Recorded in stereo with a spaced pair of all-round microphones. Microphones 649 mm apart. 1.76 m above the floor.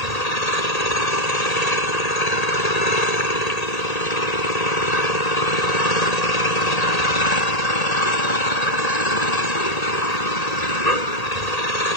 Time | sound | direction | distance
0.0 | an engine running | 75° left (ahead or behind) | ?